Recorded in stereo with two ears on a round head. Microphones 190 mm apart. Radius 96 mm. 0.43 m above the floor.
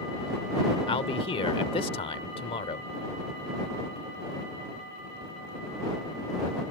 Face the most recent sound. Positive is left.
turn(degrees=30)  # may be behind; listen again after turning